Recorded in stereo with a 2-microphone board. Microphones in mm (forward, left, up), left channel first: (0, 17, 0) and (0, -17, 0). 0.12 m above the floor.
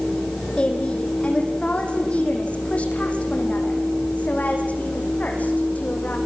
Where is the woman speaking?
30° left (ahead or behind), 6 m; by 6.2 s 50° left (ahead or behind), 9 m.